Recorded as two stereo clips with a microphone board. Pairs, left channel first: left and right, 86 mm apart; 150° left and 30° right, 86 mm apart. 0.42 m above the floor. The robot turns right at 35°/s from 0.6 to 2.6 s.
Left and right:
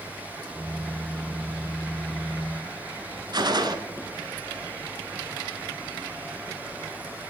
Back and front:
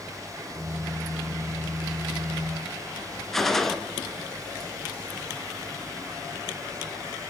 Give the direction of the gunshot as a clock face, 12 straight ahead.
4 o'clock.